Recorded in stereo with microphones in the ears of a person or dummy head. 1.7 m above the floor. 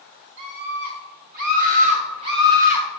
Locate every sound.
0.4 s a scream: 65° right (ahead or behind), 1.8 m; by 2.9 s 10° right (ahead or behind), 0.9 m